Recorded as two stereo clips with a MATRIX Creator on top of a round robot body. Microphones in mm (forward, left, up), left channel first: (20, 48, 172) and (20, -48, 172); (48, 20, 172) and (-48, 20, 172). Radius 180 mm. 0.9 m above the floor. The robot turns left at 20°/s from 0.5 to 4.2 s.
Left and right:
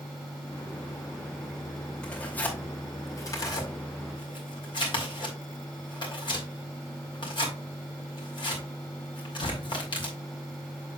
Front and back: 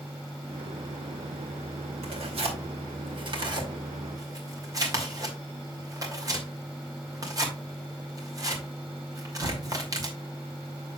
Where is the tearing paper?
170° left, 2.5 m; by 10.2 s 130° left, 2.5 m.